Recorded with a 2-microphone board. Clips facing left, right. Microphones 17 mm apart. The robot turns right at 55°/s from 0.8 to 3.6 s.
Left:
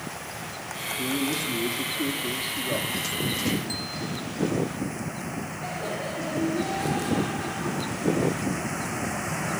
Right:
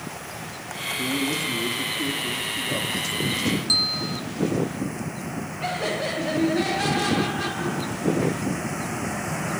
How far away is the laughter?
About 3 m.